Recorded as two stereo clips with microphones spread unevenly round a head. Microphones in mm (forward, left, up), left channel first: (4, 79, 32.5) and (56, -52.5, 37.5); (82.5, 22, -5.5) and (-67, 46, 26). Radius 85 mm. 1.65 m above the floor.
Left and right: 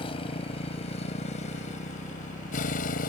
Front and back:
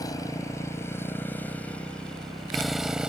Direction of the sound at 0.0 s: 60° left.